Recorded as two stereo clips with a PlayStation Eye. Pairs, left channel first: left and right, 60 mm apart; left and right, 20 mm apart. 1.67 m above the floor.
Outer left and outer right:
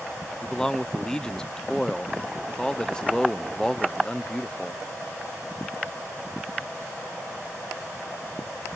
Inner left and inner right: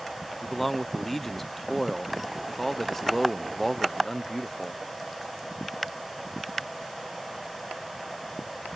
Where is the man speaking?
10° left (ahead or behind).